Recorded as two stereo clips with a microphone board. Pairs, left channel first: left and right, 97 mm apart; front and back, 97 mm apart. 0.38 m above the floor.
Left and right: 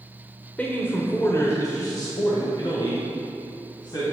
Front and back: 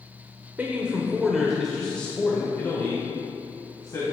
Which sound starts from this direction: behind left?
A man speaking, at 0.6 s.